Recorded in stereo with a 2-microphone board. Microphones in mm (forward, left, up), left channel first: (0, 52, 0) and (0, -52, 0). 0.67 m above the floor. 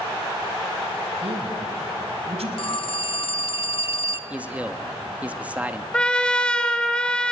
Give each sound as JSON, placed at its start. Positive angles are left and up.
{"t": 1.2, "sound": "a man speaking", "side_deg": -70, "distance_m": 3.0}
{"t": 2.6, "sound": "a phone ringing", "side_deg": 55, "distance_m": 0.9}
{"t": 4.3, "sound": "a man speaking", "side_deg": -15, "distance_m": 0.9}
{"t": 5.9, "sound": "a trumpet", "side_deg": 10, "distance_m": 1.4}